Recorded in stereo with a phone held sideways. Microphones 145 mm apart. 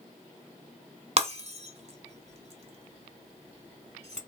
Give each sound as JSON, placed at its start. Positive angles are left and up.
{"t": 1.2, "sound": "breaking glass", "side_deg": -45, "distance_m": 1.1}